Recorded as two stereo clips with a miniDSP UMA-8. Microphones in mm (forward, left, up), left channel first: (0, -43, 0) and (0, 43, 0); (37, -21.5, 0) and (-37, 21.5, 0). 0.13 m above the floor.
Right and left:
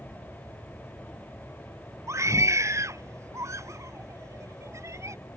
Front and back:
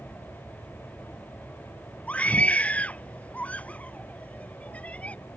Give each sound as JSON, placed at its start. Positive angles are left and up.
{"t": 2.1, "sound": "a scream", "azimuth_deg": 40}